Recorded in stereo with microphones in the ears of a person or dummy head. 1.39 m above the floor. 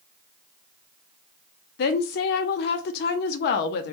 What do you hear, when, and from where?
1.8 s a woman speaking: 50° left (ahead or behind), 0.5 m